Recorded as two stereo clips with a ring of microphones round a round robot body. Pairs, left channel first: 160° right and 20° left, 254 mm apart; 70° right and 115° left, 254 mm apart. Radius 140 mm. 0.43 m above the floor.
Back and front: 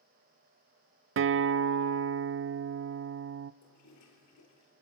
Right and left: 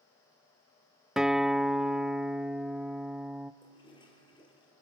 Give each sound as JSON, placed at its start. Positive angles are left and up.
{"t": 1.2, "sound": "a guitar", "azimuth_deg": 25, "distance_m": 0.6}
{"t": 3.6, "sound": "a toilet flushing", "azimuth_deg": -140, "distance_m": 4.5}